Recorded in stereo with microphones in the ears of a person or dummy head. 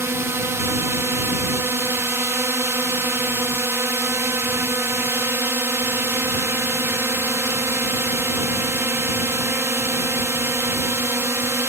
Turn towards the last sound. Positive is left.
turn(degrees=-10)  # may be behind; listen again after turning